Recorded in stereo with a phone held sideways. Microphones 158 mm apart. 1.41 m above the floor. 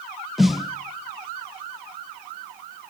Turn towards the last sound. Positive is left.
turn(degrees=0)  # may be behind; listen again after turning